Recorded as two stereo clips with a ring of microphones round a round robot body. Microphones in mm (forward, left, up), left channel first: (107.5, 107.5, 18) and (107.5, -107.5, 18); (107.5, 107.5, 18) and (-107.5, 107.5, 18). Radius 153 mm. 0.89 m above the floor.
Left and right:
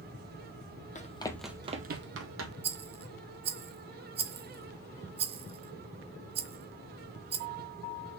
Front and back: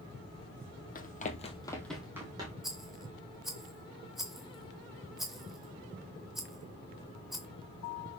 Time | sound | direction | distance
0.9 | running footsteps | 40° left | 1.3 m
2.6 | a rattle | 95° right | 0.6 m